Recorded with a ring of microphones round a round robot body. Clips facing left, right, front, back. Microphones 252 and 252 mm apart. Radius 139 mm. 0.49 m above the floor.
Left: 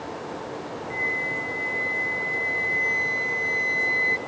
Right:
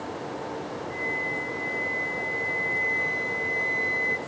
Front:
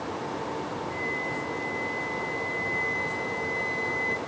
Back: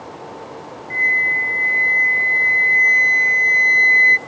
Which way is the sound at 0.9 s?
165° left.